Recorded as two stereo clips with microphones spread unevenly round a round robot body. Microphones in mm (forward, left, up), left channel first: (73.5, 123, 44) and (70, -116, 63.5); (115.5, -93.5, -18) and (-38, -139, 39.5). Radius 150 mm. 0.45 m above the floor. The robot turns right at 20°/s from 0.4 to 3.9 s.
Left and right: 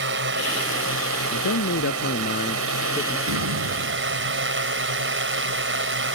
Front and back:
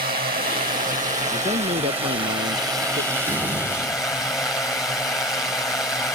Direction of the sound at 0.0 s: 135° right.